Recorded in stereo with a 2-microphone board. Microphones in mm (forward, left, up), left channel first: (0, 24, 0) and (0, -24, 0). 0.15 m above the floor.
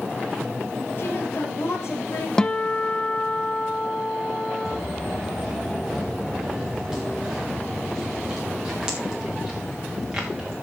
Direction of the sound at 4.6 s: 10° right (ahead or behind).